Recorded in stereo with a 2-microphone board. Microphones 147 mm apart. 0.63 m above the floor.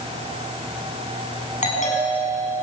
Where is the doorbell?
55° left (ahead or behind), 8 m.